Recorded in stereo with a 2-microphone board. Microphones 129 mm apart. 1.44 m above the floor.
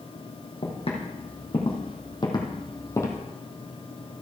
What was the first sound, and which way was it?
Footsteps, 50° left (ahead or behind).